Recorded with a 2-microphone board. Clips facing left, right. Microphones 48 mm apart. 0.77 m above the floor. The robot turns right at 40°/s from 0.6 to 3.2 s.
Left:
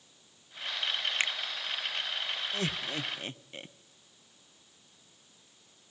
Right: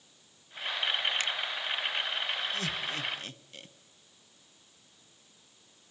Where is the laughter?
35° left (ahead or behind), 1.1 m; by 3.7 s 25° left (ahead or behind), 1.1 m.